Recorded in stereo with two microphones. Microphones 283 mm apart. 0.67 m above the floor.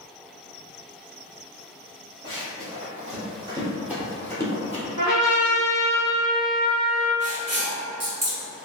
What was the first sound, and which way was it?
Running footsteps, 35° right (ahead or behind).